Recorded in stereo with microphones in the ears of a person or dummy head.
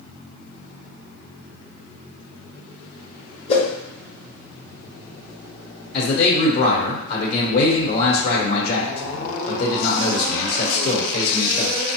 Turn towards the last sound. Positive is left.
turn(degrees=60)  # may be behind; listen again after turning